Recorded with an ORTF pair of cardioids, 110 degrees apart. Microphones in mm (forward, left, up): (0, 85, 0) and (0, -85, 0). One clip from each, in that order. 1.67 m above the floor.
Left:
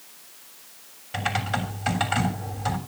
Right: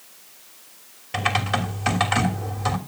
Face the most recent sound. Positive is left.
turn(degrees=-35)